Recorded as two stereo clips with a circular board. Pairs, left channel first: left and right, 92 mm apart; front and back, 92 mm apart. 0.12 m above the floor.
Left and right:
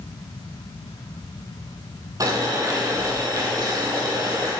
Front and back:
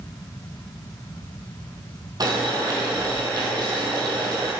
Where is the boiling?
135° right, 2 m.